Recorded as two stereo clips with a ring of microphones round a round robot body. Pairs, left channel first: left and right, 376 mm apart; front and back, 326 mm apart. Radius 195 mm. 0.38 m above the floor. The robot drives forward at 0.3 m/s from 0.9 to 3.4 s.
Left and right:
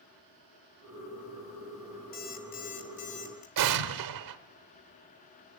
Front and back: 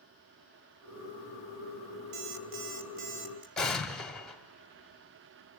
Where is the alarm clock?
155° left, 2 m; by 3.5 s 160° left, 2.5 m.